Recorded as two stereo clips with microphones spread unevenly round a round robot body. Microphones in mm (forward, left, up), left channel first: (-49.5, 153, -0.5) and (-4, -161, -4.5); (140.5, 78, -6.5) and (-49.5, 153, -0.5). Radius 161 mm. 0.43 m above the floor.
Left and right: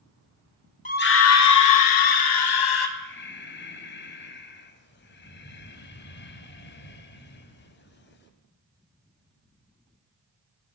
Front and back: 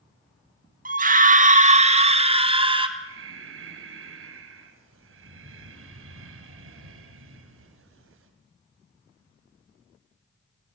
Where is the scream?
150° left, 1.4 m; by 2.9 s 95° left, 3.5 m.